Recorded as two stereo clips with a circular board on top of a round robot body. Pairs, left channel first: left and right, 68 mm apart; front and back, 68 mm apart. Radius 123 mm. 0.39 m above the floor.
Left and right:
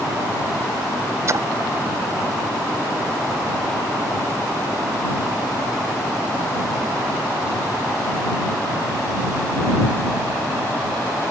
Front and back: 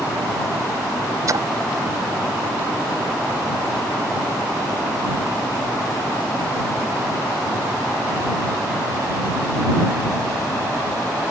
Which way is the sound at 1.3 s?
140° right.